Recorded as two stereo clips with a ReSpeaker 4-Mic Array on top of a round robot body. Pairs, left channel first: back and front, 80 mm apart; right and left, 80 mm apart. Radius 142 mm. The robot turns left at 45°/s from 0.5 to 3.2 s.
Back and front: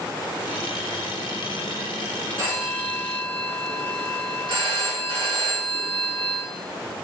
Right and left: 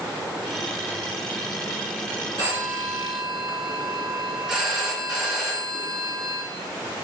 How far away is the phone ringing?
About 3.5 m.